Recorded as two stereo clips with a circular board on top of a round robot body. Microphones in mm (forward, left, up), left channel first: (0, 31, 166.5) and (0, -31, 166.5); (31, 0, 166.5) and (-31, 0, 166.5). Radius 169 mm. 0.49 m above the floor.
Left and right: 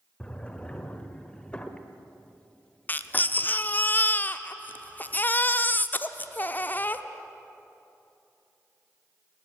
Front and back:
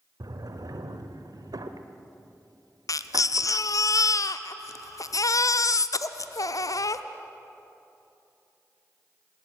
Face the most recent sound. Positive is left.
turn(degrees=30)